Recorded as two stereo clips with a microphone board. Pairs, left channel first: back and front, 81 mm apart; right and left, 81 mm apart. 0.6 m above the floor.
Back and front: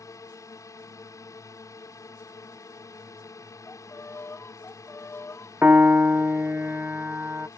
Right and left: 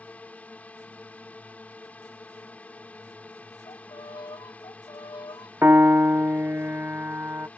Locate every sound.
0.0 s a drone: 155° right
3.7 s a violin: 120° right
5.6 s a piano: 50° left